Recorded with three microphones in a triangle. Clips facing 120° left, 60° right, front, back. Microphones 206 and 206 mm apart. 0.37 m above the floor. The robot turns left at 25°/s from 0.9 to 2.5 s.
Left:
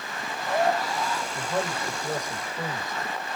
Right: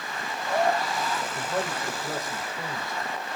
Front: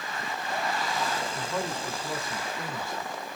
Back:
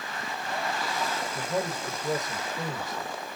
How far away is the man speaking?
About 1.0 m.